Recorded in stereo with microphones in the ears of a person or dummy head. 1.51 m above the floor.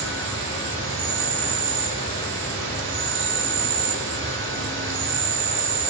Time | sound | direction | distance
0.0 | an insect | 75° right (ahead or behind) | 0.7 m